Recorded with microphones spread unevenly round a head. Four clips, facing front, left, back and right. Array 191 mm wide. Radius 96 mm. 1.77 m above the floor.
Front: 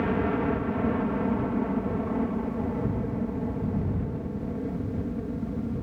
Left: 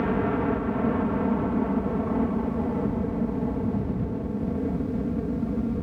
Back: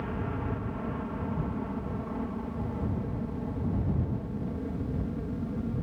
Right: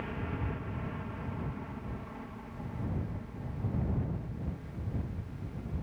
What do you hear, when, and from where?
0.0 s a helicopter: 55° left; by 5.8 s 85° left